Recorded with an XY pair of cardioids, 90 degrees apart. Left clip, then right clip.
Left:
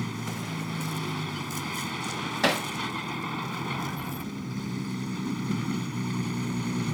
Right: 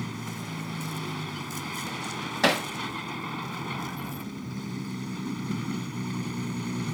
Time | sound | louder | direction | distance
0.0 | a vehicle | left 2 dB | 15° left | ?
2.4 | hammering | right 2 dB | 10° right | ?